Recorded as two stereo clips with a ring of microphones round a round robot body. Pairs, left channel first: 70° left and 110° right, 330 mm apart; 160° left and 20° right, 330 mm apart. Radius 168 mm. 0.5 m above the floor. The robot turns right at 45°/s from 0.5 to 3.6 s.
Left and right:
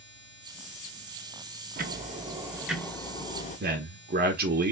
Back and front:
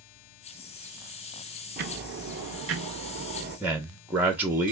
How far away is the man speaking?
About 0.7 m.